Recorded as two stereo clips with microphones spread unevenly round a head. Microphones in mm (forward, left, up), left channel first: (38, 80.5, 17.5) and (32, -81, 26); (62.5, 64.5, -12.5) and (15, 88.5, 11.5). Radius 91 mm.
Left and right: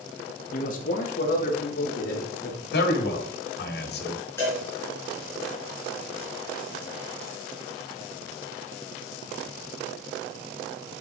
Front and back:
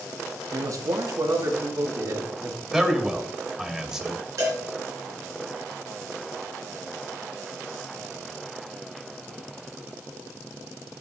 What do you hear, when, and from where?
0.5 s a man speaking: 125° left, 1.7 m
2.7 s a man speaking: 70° left, 1.9 m
4.4 s a cowbell: 165° left, 3.5 m